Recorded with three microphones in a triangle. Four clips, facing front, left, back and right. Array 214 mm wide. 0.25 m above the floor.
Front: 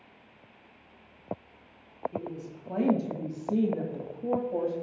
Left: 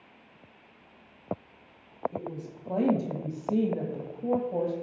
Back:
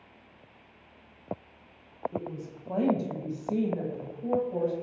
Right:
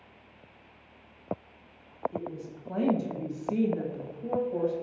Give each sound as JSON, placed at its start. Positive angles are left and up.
{"t": 2.1, "sound": "a woman speaking", "azimuth_deg": 140, "distance_m": 1.6}